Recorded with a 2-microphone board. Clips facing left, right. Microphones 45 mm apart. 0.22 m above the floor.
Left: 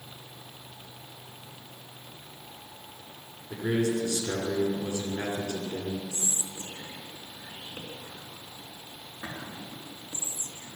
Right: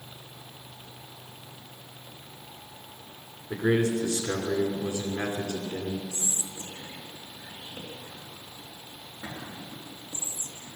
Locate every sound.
3.5 s a man speaking: 35° right (ahead or behind), 2 m
6.1 s whispering: 35° left (ahead or behind), 3.5 m